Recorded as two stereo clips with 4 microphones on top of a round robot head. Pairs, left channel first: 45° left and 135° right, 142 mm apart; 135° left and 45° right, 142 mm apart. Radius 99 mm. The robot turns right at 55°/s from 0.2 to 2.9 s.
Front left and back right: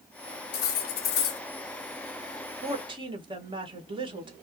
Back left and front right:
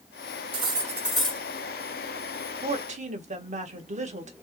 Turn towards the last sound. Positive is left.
turn(degrees=-80)